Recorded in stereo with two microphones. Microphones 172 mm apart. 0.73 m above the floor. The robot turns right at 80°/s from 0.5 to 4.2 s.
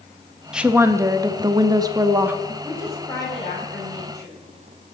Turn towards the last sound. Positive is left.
turn(degrees=100)